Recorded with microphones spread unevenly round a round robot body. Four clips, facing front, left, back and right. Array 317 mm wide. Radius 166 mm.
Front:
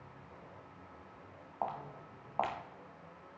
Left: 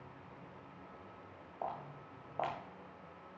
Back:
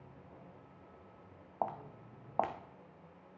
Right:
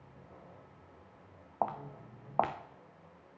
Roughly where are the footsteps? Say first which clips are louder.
Right 7 dB, even; right.